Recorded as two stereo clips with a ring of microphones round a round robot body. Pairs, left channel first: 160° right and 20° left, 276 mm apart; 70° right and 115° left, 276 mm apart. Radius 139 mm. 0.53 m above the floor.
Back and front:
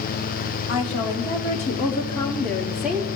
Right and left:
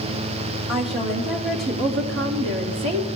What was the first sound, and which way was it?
A woman speaking, straight behind.